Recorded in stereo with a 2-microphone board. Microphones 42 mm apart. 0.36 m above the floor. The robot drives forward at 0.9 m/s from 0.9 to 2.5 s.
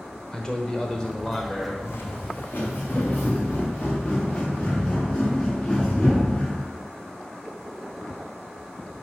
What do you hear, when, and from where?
0.3 s a man speaking: 20° left (ahead or behind), 0.9 m; by 1.7 s 15° left (ahead or behind), 1.2 m
1.8 s footsteps: 75° left (ahead or behind), 1.1 m; by 6.6 s 20° left (ahead or behind), 4.5 m